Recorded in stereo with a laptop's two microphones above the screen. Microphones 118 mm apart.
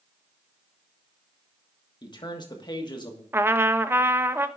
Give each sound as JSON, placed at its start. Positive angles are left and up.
{"t": 2.0, "sound": "a man speaking", "side_deg": 35, "distance_m": 1.4}
{"t": 3.3, "sound": "a trumpet", "side_deg": -20, "distance_m": 0.6}